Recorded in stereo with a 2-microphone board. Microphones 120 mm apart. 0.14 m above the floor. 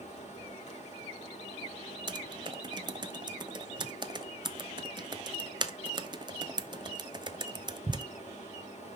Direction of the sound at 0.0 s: 75° left (ahead or behind).